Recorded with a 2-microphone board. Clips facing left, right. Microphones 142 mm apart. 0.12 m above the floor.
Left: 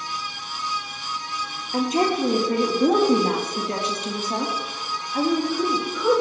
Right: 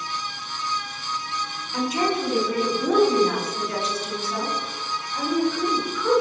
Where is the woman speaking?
50° left (ahead or behind), 3.5 m; by 6.2 s 75° left (ahead or behind), 5 m.